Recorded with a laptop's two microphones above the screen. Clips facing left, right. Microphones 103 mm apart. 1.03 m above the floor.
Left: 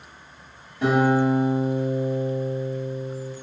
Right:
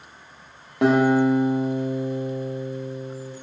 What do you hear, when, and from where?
0.8 s a guitar: 75° right (ahead or behind), 0.8 m